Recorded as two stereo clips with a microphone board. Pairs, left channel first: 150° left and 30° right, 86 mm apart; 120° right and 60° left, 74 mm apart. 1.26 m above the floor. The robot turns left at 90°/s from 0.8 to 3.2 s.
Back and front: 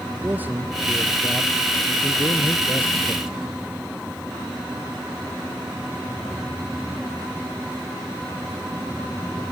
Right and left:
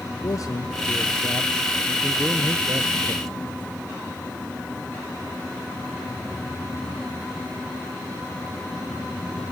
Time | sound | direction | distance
0.2 | a man speaking | 95° right | 0.8 m